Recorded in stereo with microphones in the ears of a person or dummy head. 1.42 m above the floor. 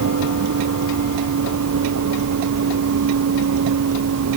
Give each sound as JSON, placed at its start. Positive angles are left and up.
{"t": 0.0, "sound": "a vehicle", "side_deg": -75}